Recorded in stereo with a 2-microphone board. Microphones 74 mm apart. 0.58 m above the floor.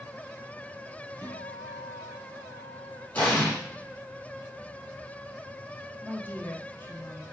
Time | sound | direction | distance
1.2 | a guitar | 30° left (ahead or behind) | 3.5 m
3.1 | an explosion | 25° left (ahead or behind) | 4 m
6.0 | a woman speaking | 25° left (ahead or behind) | 0.9 m